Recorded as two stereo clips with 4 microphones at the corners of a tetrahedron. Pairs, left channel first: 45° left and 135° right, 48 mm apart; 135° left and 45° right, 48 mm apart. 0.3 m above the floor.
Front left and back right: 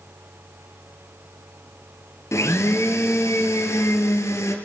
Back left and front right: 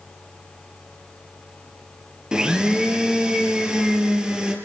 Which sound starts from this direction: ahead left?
A blender, at 2.3 s.